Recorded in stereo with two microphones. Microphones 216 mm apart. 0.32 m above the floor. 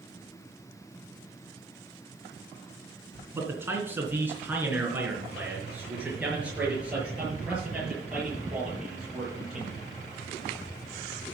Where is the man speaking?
10° right (ahead or behind), 3 m; by 9.8 s 5° right (ahead or behind), 7 m.